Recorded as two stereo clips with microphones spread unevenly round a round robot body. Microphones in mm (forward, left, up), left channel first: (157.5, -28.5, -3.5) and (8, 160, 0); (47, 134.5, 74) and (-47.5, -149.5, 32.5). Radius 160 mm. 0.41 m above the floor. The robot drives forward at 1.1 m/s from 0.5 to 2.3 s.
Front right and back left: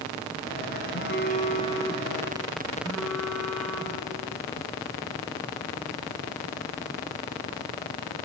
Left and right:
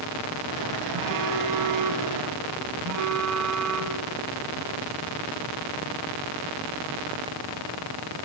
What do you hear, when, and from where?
0.9 s a phone buzzing: 105° right, 1.6 m; by 4.0 s 140° right, 2.5 m